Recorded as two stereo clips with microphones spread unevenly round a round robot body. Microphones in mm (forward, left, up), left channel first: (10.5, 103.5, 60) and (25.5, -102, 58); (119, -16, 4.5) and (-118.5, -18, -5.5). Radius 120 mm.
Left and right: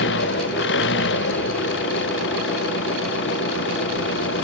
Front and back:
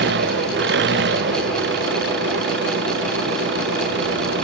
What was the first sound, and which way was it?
An engine running, 130° left.